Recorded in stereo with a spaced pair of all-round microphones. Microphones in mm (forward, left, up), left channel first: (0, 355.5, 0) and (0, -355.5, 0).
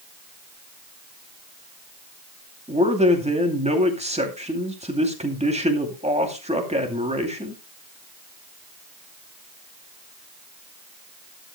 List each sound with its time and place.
2.7 s a man speaking: 10° right (ahead or behind), 2.5 m